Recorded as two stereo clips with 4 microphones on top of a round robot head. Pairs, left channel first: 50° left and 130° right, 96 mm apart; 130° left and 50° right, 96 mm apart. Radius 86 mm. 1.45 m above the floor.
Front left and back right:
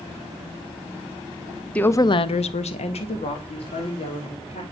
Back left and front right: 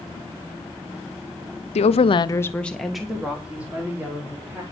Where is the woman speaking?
130° left, 0.8 m; by 4.6 s 20° left, 3 m.